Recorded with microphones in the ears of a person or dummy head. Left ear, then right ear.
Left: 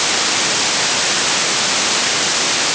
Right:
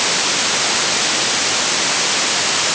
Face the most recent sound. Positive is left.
No sound to turn to.